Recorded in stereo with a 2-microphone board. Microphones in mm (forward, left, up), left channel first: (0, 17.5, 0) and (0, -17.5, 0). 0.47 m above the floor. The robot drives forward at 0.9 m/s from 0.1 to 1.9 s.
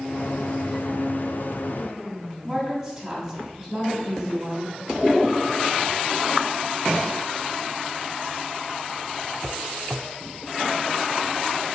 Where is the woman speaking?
5° right (ahead or behind), 2.5 m.